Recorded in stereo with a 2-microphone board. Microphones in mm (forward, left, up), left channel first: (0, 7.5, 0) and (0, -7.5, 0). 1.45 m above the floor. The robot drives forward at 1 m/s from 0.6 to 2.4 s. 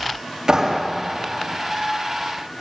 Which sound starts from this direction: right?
A clap, at 0.5 s.